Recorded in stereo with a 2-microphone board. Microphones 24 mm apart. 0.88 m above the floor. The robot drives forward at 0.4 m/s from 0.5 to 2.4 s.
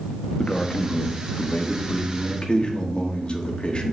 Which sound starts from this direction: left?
A man speaking, at 0.4 s.